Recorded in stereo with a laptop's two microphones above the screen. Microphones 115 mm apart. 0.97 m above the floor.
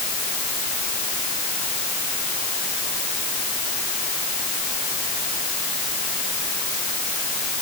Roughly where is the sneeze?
No sneeze in this recording.